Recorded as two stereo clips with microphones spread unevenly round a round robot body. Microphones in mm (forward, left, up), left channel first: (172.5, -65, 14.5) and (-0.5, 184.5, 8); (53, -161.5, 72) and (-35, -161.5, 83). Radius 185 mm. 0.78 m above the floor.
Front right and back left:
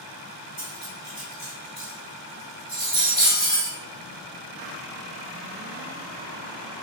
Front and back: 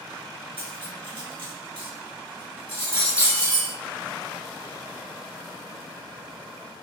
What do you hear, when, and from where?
0.6 s cutlery clinking: 160° right, 1.3 m